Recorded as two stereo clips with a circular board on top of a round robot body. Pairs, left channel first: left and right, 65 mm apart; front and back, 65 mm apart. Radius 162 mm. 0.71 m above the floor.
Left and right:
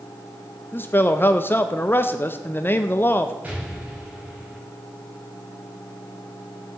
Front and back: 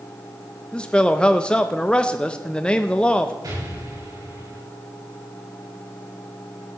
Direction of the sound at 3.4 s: 160° right.